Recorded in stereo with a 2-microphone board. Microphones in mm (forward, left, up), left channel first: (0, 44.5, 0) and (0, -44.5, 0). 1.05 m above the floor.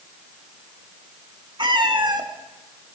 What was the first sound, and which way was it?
A cat meowing, 60° right (ahead or behind).